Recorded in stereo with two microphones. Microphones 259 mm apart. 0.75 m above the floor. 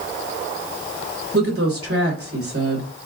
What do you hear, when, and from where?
1.3 s a woman speaking: 60° right (ahead or behind), 2.5 m